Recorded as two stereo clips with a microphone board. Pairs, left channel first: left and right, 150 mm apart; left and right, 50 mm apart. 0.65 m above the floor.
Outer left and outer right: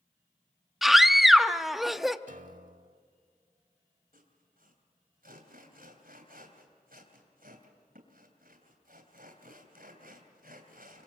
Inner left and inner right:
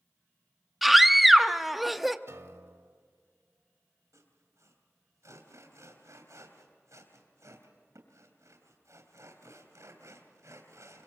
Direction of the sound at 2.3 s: 60° right (ahead or behind).